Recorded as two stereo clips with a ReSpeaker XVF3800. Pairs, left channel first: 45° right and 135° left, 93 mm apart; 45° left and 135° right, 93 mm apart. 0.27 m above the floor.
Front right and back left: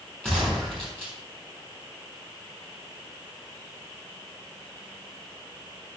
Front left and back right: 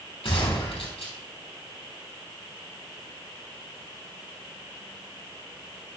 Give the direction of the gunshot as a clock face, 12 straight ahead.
11 o'clock.